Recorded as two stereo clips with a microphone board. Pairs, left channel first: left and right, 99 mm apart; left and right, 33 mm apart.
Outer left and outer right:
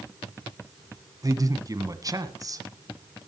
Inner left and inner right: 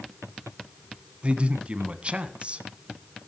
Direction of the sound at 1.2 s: 35° right (ahead or behind).